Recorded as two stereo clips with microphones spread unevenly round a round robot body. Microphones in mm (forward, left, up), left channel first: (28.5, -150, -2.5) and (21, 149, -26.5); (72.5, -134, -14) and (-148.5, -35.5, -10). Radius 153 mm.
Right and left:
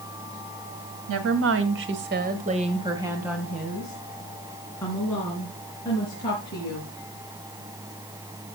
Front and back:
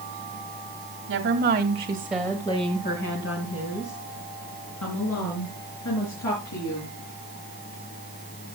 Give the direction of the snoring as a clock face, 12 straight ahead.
No snoring in this recording.